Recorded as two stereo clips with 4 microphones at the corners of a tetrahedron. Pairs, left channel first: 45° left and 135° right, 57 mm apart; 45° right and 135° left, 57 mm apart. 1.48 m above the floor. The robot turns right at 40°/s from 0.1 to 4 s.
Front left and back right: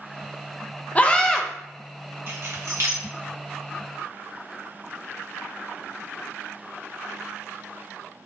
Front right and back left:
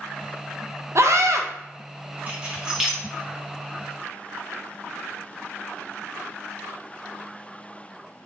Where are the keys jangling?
170° right, 1.2 m; by 3.0 s 140° right, 1.2 m.